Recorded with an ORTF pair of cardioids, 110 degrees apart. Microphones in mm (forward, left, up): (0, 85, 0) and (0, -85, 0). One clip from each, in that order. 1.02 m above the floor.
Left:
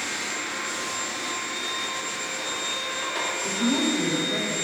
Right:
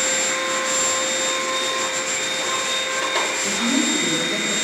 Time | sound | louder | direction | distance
0.0 | a machine running | right 8 dB | 50° right | 0.8 m
3.4 | a woman speaking | right 4 dB | 20° right | 4 m